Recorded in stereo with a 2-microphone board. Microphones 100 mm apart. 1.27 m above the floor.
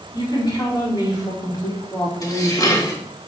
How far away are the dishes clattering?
About 1.4 m.